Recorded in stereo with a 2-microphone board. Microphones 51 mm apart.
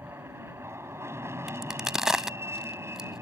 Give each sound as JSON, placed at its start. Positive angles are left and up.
{"t": 0.0, "sound": "an aircraft", "side_deg": -65}
{"t": 1.5, "sound": "a crack", "side_deg": -10}